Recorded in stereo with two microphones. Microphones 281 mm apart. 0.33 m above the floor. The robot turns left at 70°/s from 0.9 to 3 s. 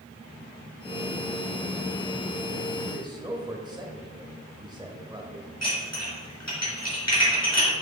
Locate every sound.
2.9 s a man speaking: 20° right (ahead or behind), 1.0 m; by 5.5 s 15° right (ahead or behind), 1.0 m
5.6 s dishes clattering: 65° left (ahead or behind), 3.5 m